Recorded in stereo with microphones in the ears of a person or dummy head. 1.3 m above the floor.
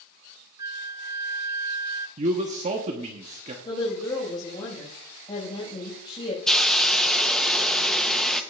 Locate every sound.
0.6 s a flute: 25° right (ahead or behind), 0.7 m
2.2 s a man speaking: 35° right (ahead or behind), 1.0 m
3.6 s a woman speaking: 30° left (ahead or behind), 5 m
6.5 s a hiss: centre (ahead or behind), 0.8 m